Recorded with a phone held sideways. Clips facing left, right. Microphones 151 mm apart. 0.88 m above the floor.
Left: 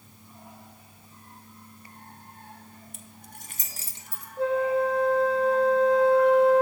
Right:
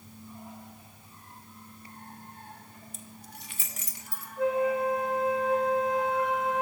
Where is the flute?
30° left (ahead or behind), 0.6 m.